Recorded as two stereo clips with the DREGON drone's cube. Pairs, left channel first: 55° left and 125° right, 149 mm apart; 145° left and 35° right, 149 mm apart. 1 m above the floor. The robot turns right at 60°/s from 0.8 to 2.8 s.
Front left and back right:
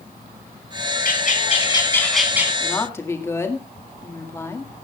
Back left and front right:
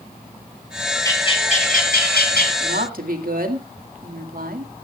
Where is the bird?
75° left, 3.5 m; by 2.5 s 165° left, 3.5 m.